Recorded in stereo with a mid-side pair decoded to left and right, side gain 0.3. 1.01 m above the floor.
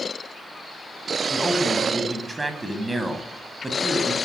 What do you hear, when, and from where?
1.3 s a man speaking: 25° right, 8 m